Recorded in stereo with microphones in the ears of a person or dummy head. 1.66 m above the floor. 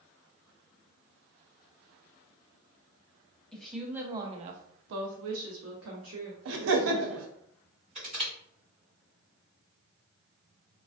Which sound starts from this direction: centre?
A woman speaking, at 3.5 s.